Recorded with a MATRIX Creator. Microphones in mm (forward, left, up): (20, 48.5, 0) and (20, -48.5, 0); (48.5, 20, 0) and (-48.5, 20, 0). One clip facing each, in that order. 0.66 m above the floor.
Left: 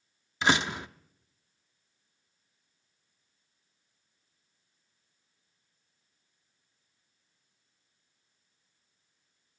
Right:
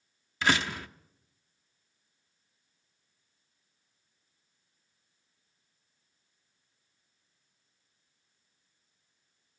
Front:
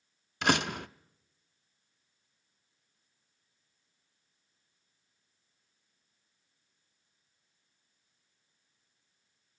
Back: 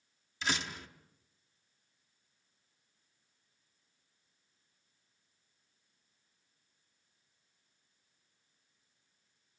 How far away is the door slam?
About 0.5 m.